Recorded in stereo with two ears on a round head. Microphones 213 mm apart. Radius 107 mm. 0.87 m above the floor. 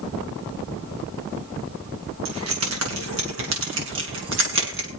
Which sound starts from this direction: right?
Keys jangling, at 2.2 s.